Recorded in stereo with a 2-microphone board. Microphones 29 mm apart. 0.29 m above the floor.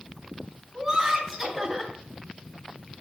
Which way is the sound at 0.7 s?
15° right (ahead or behind).